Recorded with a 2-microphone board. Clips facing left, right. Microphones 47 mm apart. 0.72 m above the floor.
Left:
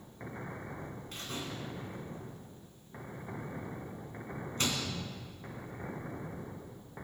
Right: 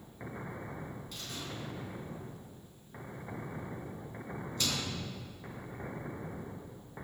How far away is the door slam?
About 4.5 m.